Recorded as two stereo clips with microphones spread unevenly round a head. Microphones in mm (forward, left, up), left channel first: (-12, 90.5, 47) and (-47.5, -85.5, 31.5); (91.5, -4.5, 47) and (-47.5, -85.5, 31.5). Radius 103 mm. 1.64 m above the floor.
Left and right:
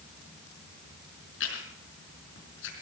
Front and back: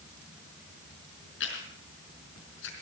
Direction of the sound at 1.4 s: 50° left.